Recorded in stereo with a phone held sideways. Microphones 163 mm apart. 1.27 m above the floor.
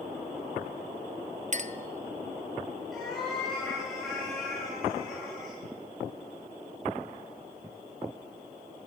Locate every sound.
1.5 s a clink: 50° right (ahead or behind), 0.5 m
2.9 s a cat meowing: centre (ahead or behind), 6.5 m